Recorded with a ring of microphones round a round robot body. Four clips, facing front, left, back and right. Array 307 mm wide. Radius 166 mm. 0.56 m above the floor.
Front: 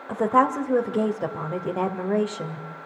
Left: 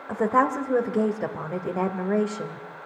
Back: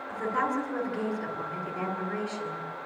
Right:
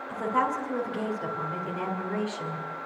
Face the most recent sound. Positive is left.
turn(degrees=40)